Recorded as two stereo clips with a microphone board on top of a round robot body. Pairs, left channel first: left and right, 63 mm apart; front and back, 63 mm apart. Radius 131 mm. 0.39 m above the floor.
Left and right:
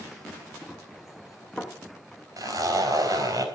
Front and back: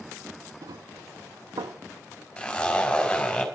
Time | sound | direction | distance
0.6 | running footsteps | 175° right | 3.5 m
2.4 | a zipper | 75° right | 4.5 m